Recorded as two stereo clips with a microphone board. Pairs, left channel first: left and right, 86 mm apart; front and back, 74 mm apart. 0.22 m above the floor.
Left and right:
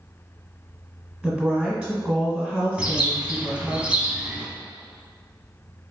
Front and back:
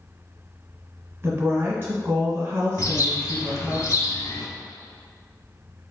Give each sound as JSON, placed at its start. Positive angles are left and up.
{"t": 1.2, "sound": "a woman speaking", "azimuth_deg": 180, "distance_m": 1.4}
{"t": 2.8, "sound": "a bird", "azimuth_deg": -20, "distance_m": 0.7}